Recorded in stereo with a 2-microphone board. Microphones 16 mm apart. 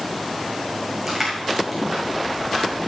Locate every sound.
1.1 s crushing: centre (ahead or behind), 5 m